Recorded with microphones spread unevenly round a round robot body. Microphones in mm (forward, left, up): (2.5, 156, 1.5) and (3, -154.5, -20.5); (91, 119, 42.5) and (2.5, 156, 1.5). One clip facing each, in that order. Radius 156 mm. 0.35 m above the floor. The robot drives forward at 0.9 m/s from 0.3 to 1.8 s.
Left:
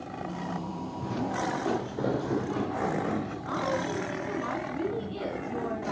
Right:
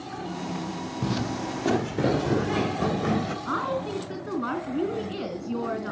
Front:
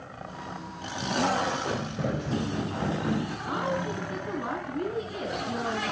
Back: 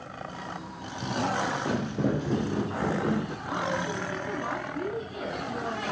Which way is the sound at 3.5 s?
110° right.